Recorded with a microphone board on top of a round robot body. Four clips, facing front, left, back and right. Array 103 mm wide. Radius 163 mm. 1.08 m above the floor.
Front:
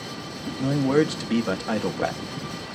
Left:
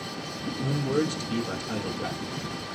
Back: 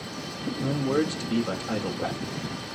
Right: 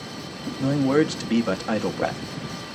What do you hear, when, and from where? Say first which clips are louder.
0.6 s a man speaking: right 7 dB, front 5 dB; 60° right, 1.0 m